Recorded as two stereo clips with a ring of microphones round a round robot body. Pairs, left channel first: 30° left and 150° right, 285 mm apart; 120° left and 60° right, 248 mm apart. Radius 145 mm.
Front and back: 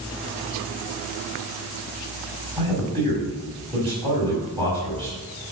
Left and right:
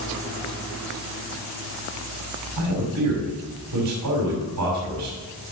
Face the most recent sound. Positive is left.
turn(degrees=-75)